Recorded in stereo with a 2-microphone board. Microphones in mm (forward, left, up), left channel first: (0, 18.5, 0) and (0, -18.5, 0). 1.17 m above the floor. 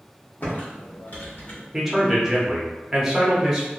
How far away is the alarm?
I don't hear an alarm.